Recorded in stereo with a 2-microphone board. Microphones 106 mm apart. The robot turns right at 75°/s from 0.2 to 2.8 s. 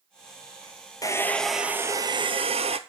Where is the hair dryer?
145° left, 0.6 m; by 2.8 s 85° right, 0.6 m.